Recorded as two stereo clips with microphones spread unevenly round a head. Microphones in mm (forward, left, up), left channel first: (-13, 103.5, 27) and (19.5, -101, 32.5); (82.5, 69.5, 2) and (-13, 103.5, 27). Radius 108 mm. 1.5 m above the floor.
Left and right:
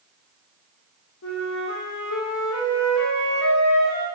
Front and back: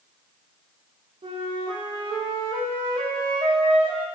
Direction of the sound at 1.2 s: 130° left.